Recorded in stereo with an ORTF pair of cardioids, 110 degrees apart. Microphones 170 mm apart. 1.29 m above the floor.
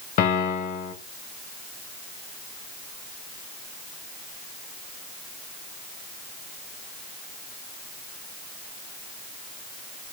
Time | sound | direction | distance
0.2 | a piano | 65° left | 3.5 m